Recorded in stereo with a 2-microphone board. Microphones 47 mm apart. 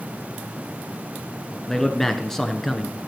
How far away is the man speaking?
About 1.1 m.